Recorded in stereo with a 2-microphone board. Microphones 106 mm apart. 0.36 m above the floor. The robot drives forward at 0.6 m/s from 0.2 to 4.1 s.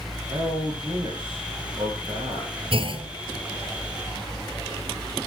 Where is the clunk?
60° right (ahead or behind), 1.5 m; by 3.1 s 55° right (ahead or behind), 1.6 m.